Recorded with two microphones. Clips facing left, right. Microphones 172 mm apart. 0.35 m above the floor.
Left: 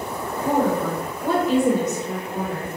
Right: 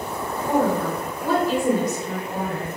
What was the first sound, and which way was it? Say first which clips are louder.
A woman speaking: even; 10° left (ahead or behind).